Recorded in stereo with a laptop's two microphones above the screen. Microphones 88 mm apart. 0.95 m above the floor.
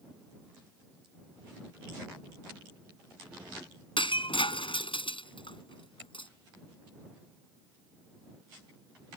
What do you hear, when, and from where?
4.0 s breaking glass: 75° left (ahead or behind)